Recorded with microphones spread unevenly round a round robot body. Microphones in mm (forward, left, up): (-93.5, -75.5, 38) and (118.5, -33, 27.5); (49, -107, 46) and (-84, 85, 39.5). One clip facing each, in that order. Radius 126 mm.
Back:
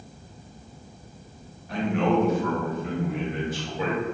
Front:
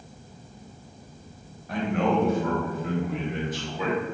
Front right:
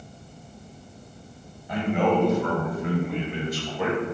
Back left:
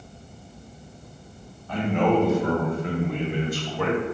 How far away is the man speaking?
About 1.0 m.